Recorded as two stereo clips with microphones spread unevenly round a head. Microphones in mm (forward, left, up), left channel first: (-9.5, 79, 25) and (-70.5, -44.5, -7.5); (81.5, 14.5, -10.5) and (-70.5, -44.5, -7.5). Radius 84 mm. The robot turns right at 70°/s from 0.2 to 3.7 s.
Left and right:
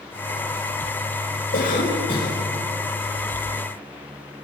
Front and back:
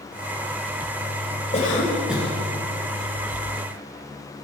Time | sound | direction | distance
1.5 | a cough | 75° left | 5.5 m